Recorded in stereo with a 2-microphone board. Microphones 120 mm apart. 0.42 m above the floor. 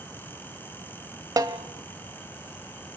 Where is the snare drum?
35° right (ahead or behind), 1.3 m.